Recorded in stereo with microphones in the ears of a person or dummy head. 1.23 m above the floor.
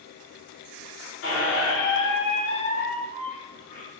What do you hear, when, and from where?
1.2 s a squeak: 50° left (ahead or behind), 1.1 m